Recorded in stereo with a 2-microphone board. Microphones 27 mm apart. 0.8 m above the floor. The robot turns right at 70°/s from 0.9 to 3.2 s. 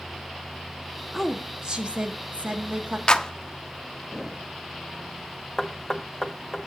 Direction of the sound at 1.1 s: 175° left.